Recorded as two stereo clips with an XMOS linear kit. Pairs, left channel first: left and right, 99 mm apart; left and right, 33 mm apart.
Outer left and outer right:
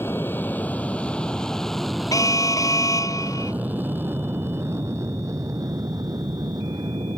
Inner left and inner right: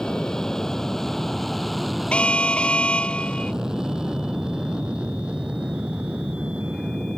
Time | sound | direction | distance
0.0 | an aircraft | 20° left (ahead or behind) | ?
2.1 | an alarm | 35° left (ahead or behind) | ?